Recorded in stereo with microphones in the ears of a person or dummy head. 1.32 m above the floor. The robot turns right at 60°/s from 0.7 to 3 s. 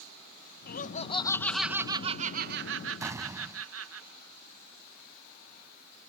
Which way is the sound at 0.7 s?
125° left.